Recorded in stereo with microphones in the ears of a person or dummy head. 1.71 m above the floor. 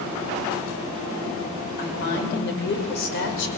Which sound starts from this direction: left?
A woman speaking, at 1.8 s.